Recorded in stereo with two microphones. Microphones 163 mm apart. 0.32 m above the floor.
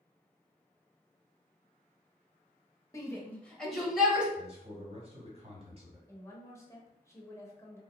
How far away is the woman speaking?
About 0.8 m.